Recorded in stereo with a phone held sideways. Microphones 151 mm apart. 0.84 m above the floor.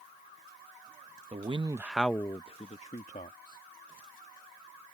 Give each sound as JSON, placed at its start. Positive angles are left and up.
{"t": 1.3, "sound": "a man speaking", "side_deg": -45}